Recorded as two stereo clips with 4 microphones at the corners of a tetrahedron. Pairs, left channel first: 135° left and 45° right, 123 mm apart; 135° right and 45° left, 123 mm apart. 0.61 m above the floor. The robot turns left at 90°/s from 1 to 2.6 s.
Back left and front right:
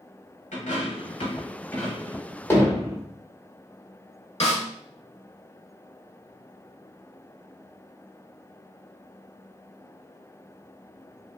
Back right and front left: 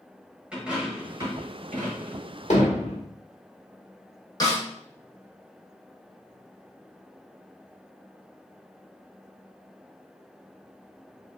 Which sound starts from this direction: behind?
A snare drum, at 4.4 s.